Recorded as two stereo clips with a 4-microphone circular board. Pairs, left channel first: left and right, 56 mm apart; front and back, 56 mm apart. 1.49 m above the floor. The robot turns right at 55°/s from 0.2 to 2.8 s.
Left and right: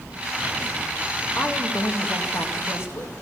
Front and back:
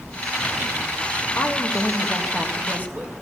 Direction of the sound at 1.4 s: 45° left.